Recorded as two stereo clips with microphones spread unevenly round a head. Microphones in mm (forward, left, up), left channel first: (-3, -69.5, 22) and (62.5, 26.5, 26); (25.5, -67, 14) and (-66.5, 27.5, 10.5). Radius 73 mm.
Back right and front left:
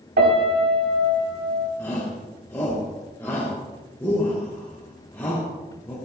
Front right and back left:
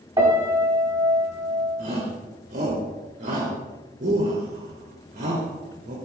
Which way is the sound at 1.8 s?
160° left.